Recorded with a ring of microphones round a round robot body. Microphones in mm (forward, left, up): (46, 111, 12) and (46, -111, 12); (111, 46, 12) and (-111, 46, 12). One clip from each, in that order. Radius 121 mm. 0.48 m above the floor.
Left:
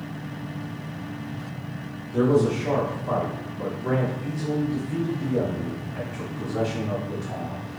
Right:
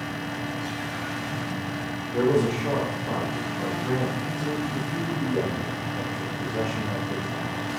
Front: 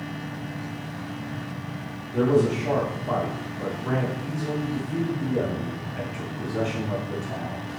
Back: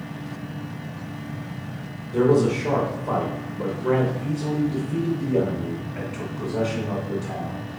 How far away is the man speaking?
About 1.6 m.